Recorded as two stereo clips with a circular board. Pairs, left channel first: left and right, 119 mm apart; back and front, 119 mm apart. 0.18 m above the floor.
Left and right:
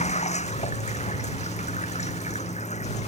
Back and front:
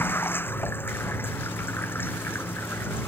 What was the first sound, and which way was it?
Running water, 110° left.